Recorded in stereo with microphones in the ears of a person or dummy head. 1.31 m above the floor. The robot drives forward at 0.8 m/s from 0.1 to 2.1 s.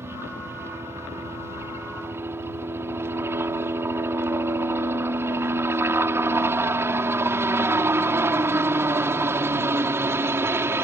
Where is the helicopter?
15° right (ahead or behind).